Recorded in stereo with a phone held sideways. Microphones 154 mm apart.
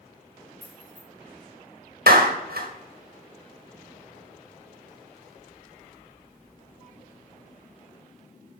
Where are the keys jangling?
25° left (ahead or behind), 5 m.